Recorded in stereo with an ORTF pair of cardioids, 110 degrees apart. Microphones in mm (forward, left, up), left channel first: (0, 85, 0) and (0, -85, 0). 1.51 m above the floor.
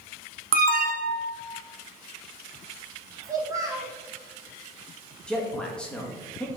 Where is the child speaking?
20° right, 2 m.